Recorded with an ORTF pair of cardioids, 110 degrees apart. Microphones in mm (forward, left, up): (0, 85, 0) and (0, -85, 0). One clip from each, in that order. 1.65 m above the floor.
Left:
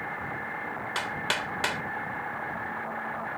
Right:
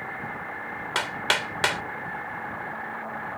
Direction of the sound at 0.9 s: 35° right.